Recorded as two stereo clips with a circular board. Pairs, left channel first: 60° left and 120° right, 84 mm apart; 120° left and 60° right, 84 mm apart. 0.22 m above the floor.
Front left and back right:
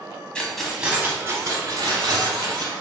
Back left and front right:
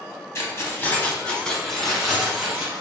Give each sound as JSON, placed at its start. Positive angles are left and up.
{"t": 0.3, "sound": "keys jangling", "azimuth_deg": 130, "distance_m": 0.9}